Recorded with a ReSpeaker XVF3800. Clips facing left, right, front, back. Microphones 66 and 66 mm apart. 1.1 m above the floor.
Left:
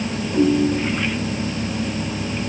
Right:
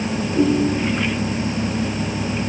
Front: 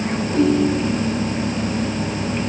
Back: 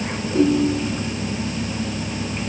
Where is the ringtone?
15° left, 3.5 m.